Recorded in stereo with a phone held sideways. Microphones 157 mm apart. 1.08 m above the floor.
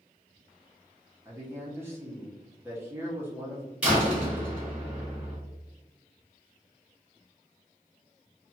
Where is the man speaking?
15° right (ahead or behind), 0.7 m.